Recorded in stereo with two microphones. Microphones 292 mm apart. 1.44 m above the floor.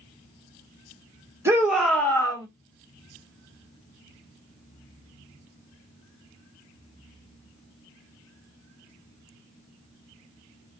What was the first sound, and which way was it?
A shout, 10° right (ahead or behind).